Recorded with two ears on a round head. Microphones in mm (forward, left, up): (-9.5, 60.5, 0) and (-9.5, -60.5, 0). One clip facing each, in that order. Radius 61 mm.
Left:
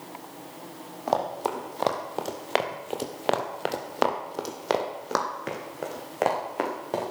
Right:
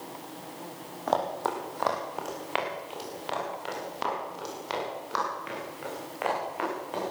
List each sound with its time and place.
1.1 s running footsteps: 10° left (ahead or behind), 3 m; by 7.1 s 45° left (ahead or behind), 6 m